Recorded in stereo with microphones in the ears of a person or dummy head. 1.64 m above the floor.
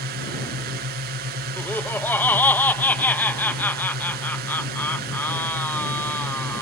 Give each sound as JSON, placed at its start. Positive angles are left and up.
{"t": 0.0, "sound": "a drone", "side_deg": -45}
{"t": 1.6, "sound": "laughter", "side_deg": 10}